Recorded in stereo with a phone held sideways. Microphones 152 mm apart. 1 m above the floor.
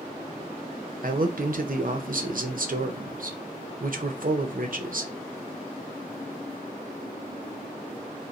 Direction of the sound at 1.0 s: 65° right (ahead or behind).